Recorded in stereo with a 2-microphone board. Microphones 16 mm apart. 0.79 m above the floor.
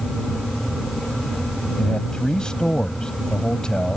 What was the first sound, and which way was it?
A man speaking, 60° left (ahead or behind).